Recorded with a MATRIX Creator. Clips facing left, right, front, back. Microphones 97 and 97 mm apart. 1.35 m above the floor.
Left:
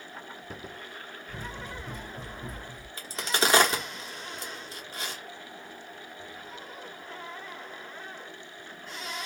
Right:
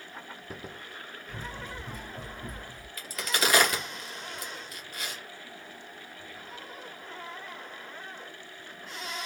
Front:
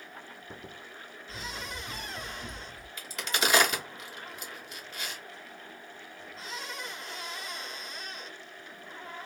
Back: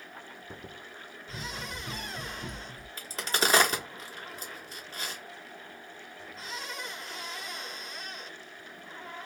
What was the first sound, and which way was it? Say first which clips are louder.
Running footsteps: even, back 1 dB; 170° left.